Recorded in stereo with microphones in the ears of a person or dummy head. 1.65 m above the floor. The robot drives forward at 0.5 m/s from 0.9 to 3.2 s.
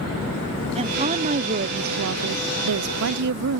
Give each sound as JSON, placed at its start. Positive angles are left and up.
{"t": 0.8, "sound": "a woman speaking", "side_deg": -30}